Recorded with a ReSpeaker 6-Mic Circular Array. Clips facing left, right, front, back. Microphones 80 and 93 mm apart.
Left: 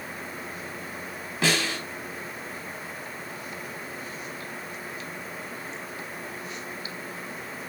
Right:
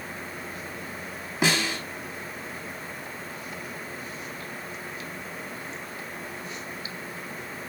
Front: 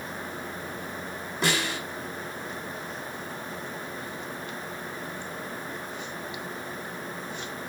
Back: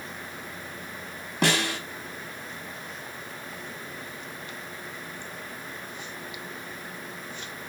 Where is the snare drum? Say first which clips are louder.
Right 1 dB, back 3 dB; 160° right, 5 m.